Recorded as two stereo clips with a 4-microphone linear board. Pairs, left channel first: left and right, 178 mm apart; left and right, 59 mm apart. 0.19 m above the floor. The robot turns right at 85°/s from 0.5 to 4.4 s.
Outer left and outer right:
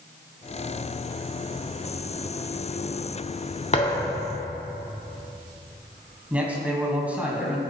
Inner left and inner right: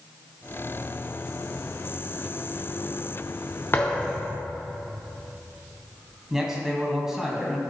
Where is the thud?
140° left, 1.7 m; by 4.4 s 165° right, 1.7 m.